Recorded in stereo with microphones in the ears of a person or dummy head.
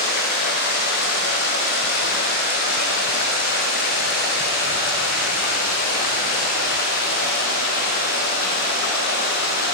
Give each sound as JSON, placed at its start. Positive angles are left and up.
{"t": 0.0, "sound": "running water", "side_deg": 45, "distance_m": 0.8}